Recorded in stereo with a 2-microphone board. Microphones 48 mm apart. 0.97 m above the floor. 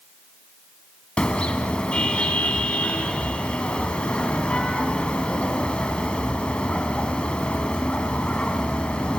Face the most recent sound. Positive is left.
turn(degrees=20)  # may be behind; listen again after turning